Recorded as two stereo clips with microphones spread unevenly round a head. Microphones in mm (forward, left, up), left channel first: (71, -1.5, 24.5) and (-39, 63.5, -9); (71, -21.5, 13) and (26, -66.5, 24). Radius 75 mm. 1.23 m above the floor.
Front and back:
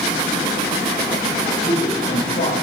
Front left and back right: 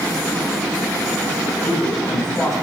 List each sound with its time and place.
1.6 s a man speaking: 45° right, 5 m